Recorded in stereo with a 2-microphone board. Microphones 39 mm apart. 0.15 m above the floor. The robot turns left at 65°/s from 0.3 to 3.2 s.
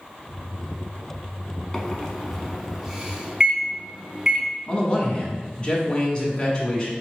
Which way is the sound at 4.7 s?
25° left (ahead or behind).